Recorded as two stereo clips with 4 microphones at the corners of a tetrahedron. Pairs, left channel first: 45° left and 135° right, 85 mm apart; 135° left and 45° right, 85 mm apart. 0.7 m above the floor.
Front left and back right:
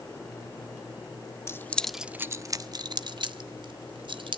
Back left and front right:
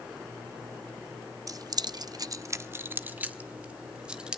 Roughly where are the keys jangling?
Ahead.